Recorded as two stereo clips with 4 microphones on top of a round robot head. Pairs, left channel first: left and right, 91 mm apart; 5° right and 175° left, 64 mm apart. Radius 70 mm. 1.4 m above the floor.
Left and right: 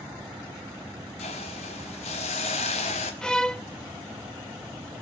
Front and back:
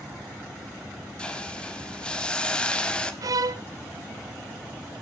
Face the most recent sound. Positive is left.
turn(degrees=170)